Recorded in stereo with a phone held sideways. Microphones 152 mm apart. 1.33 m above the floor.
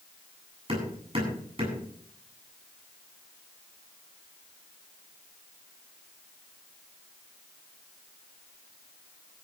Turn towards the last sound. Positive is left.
turn(degrees=-40)  # may be behind; listen again after turning